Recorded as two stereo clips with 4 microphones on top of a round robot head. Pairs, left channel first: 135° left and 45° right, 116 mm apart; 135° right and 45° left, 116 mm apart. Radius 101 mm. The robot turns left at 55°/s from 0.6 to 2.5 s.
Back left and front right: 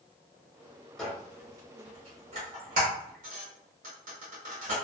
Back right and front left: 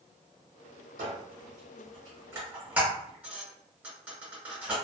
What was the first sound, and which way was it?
A squeak, 50° left.